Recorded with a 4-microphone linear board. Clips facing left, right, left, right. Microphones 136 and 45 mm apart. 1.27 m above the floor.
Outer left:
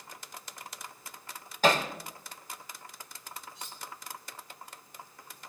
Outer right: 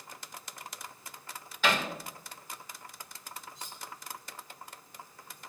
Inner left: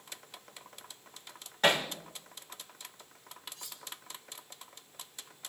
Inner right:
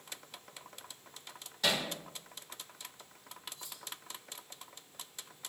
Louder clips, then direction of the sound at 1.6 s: Outer left 5 dB, inner left 6 dB; 40° left (ahead or behind).